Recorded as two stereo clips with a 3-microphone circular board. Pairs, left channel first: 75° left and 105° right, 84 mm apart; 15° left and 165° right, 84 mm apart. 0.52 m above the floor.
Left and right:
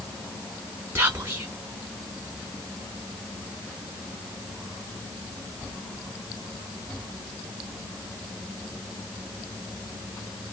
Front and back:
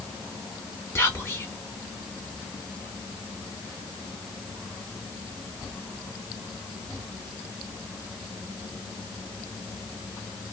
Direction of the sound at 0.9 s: 45° right.